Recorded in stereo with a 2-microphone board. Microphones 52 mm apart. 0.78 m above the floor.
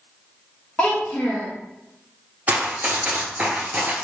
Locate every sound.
0.8 s a child speaking: 20° left (ahead or behind), 0.6 m
2.5 s running footsteps: 25° right (ahead or behind), 0.9 m; by 4.0 s 20° right (ahead or behind), 0.9 m